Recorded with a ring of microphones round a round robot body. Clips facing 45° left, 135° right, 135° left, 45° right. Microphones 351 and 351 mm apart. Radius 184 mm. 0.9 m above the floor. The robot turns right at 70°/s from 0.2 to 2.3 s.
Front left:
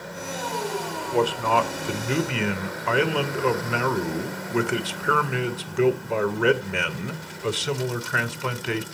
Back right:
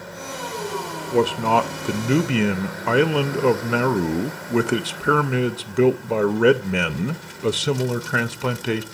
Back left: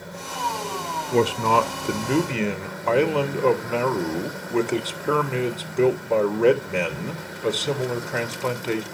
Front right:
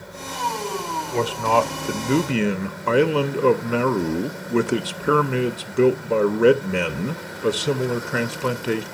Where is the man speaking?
165° left, 0.7 m; by 8.8 s 110° right, 0.7 m.